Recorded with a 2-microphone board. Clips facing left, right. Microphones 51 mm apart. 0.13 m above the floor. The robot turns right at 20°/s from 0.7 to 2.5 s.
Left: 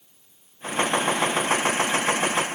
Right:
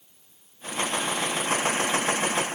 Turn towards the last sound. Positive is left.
No sound to turn to.